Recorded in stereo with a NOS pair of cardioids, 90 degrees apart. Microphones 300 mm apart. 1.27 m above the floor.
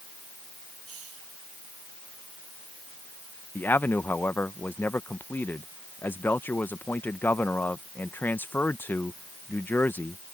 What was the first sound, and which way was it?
A hiss, 50° right.